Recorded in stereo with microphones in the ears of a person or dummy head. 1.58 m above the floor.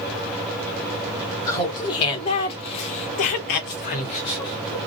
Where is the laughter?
20° left (ahead or behind), 1.2 m; by 4.9 s 15° left (ahead or behind), 0.9 m.